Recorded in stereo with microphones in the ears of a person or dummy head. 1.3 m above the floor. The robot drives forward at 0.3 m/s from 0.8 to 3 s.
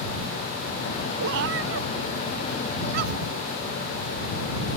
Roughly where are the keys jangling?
No keys jangling in this recording.